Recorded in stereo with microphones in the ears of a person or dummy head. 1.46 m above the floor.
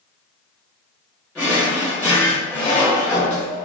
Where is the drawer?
5° left (ahead or behind), 1.1 m.